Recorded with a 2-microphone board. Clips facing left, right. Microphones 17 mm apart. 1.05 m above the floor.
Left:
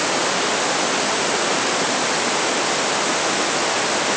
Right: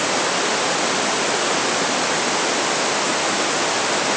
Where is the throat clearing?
No throat clearing in this recording.